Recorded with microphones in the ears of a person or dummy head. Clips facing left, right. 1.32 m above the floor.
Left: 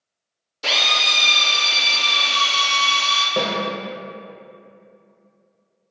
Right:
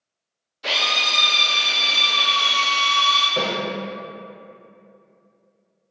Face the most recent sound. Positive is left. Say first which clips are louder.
# left 2 dB
turn(degrees=45)  # may be behind; listen again after turning